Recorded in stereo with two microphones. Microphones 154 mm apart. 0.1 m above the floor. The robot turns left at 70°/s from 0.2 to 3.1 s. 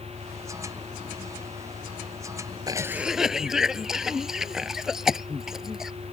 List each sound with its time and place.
0.0 s an engine running: 105° left; by 6.1 s 100° right
2.7 s a cough: 25° right (ahead or behind); by 5.9 s 5° right (ahead or behind)